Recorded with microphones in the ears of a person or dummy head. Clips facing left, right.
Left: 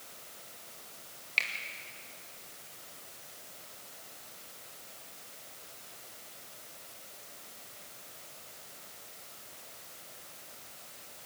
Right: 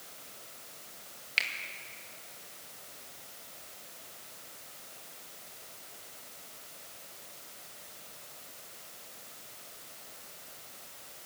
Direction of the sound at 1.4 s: 15° right (ahead or behind).